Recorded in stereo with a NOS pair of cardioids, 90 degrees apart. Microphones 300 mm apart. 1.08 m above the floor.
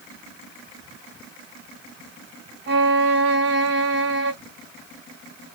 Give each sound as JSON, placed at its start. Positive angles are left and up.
{"t": 2.7, "sound": "a violin", "azimuth_deg": -40, "distance_m": 1.4}